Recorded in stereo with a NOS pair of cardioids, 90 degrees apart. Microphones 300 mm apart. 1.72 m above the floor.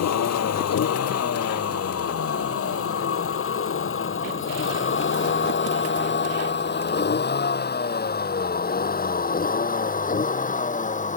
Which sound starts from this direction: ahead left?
A vehicle, at 0.0 s.